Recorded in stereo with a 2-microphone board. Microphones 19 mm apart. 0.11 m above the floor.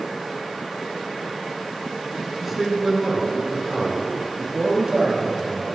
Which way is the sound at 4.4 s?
60° right (ahead or behind).